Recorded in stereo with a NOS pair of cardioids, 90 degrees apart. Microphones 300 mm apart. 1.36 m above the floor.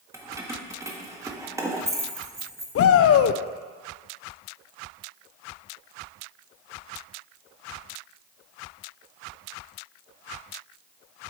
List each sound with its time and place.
0.1 s keys jangling: 10° right, 1.4 m
2.8 s a shout: 50° left, 0.6 m